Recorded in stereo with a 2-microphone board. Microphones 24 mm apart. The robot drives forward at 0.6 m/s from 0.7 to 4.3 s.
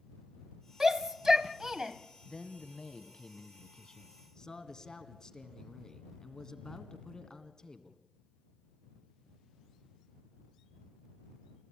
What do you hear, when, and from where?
0.8 s a shout: 25° right (ahead or behind), 1.2 m
2.2 s a man speaking: 40° left (ahead or behind), 1.3 m; by 8.0 s 25° left (ahead or behind), 1.8 m